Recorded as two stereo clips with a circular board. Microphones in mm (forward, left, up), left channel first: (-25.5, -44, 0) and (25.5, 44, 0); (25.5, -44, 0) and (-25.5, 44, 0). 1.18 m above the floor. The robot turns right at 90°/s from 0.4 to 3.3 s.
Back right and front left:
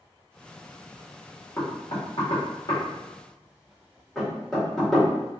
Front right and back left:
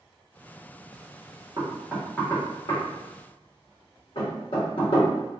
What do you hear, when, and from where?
1.6 s knocking: 170° left, 1.5 m; by 5.3 s 35° right, 1.5 m